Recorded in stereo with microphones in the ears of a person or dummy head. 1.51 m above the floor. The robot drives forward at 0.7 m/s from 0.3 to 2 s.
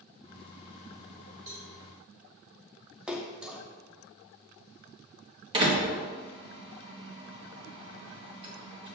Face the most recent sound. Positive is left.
turn(degrees=-30)  # may be behind; listen again after turning